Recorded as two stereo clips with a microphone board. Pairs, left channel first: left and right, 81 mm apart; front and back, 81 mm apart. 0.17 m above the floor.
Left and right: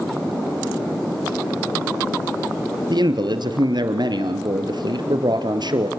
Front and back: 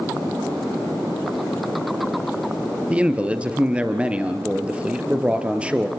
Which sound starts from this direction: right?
A man speaking, at 2.9 s.